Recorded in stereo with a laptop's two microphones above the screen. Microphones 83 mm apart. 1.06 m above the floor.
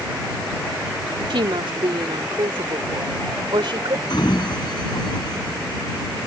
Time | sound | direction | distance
1.3 | a woman speaking | 80° right | ?
4.1 | a sliding door | 60° left (ahead or behind) | ?